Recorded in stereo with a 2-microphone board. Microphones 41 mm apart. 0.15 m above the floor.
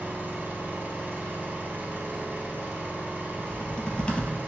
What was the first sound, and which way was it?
An engine running, 50° right (ahead or behind).